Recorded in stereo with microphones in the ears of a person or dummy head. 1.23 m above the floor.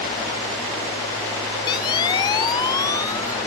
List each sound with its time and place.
1.7 s a siren: 25° left (ahead or behind); by 3.4 s 20° left (ahead or behind)